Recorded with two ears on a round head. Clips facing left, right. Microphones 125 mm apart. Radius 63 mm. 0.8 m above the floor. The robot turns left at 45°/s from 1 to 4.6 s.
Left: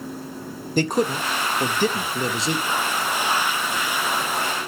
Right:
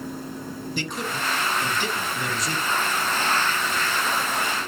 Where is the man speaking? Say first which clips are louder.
Left 11 dB; 35° left (ahead or behind), 0.7 m; by 2.8 s 15° left (ahead or behind), 0.7 m.